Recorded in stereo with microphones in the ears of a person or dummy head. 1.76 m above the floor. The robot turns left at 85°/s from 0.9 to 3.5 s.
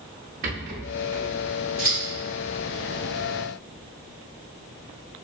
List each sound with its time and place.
0.4 s a rattle: 75° right, 0.6 m; by 1.3 s 105° right, 0.6 m
1.8 s scissors: 5° left (ahead or behind), 1.5 m; by 2.0 s 10° left (ahead or behind), 1.5 m